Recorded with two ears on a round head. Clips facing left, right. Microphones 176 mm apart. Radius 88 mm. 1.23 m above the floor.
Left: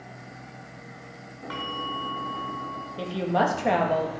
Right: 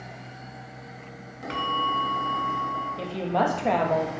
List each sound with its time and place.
1.5 s a bell: 30° right (ahead or behind), 1.6 m
3.0 s a woman speaking: 5° left (ahead or behind), 1.9 m